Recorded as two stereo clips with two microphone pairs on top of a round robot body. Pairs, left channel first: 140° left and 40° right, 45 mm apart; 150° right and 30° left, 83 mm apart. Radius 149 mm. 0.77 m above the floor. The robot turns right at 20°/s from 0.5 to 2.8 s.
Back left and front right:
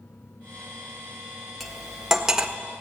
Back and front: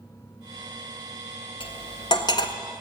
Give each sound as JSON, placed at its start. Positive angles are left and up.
{"t": 1.6, "sound": "cutlery clinking", "azimuth_deg": -130, "distance_m": 1.4}